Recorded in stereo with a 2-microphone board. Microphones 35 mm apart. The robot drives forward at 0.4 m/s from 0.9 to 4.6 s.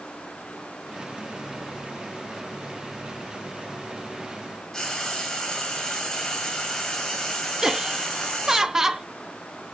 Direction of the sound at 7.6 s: 15° right (ahead or behind).